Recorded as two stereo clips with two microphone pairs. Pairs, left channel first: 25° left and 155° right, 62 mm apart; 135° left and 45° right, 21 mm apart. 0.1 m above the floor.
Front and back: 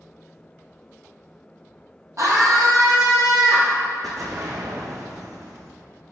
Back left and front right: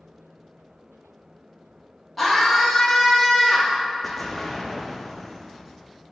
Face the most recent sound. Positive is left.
turn(degrees=-135)